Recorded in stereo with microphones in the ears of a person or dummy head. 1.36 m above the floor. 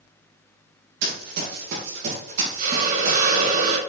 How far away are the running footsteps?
About 3 m.